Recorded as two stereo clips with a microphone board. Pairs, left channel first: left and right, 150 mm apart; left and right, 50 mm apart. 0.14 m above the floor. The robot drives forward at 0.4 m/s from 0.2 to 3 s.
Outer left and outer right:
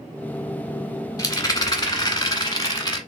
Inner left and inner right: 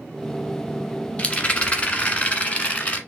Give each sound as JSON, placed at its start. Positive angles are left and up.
{"t": 1.2, "sound": "a rattle", "side_deg": 25, "distance_m": 1.2}